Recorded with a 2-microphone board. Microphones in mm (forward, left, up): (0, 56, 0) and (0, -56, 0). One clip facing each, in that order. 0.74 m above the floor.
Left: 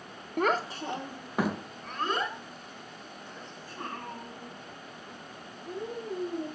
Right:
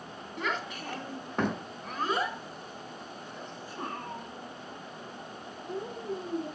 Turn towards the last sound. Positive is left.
turn(degrees=-20)  # may be behind; listen again after turning